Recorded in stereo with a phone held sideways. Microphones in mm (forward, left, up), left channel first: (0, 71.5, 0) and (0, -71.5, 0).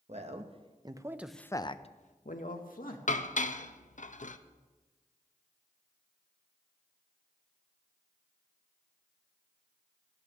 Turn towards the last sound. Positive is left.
turn(degrees=60)  # may be behind; listen again after turning